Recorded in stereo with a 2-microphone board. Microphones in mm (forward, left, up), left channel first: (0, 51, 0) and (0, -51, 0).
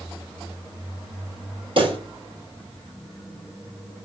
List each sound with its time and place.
1.8 s a pop: 50° right (ahead or behind), 2.5 m